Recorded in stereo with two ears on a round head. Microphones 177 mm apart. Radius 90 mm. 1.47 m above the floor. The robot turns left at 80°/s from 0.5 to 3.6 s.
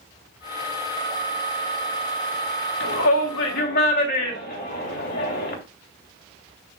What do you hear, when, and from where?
2.8 s a shout: 65° left (ahead or behind), 3 m; by 5.5 s 50° left (ahead or behind), 3 m